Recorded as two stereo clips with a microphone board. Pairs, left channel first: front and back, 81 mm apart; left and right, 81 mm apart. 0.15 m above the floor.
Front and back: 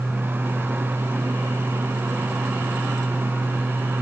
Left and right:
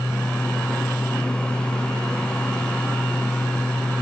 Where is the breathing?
No breathing in this recording.